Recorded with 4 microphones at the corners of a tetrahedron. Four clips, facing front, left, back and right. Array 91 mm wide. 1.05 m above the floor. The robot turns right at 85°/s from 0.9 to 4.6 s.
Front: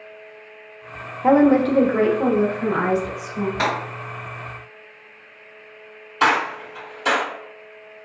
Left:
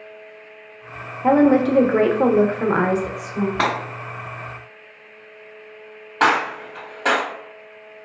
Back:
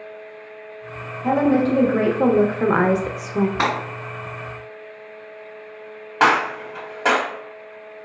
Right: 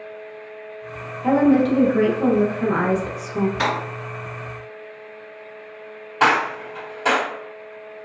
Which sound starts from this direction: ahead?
A woman speaking, at 1.2 s.